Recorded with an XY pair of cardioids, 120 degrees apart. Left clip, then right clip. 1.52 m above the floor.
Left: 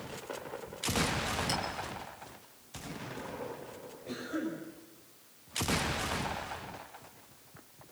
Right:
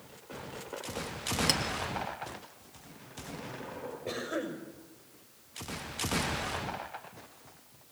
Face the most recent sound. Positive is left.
turn(degrees=-55)